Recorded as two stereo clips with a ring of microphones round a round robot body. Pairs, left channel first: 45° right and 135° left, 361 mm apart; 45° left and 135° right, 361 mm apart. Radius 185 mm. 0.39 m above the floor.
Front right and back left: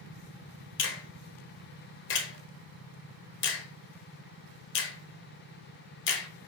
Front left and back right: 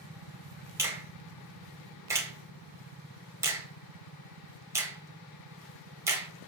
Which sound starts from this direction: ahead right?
A finger snap, at 0.8 s.